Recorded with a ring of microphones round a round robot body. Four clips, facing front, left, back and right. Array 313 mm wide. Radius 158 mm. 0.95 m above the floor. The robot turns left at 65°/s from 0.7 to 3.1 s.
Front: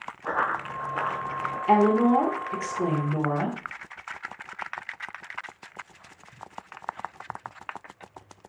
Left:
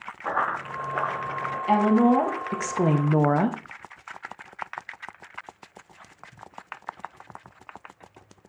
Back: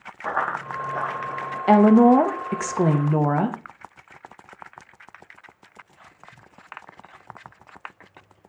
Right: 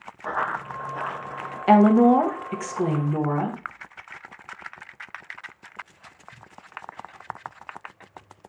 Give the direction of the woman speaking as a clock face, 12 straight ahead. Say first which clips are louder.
Right 4 dB, back 6 dB; 5 o'clock.